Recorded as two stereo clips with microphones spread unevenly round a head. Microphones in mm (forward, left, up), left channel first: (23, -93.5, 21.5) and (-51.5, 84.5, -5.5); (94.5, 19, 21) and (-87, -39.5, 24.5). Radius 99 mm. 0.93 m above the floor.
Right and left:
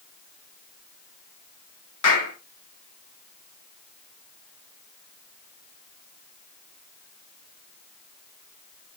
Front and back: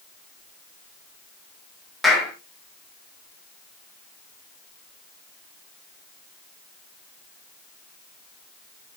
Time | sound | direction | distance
2.0 | a clap | 70° right | 5 m